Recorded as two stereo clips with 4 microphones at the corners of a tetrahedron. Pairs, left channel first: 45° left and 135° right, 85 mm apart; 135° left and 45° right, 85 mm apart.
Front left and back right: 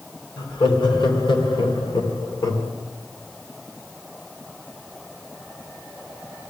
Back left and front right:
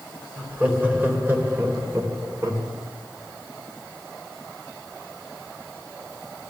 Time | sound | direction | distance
0.4 | laughter | 30° left | 3.5 m